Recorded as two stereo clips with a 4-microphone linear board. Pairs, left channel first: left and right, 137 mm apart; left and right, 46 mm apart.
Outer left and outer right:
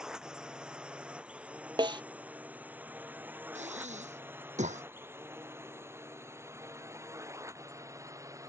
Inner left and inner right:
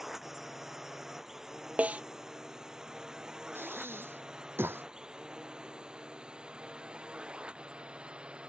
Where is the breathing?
60° right (ahead or behind).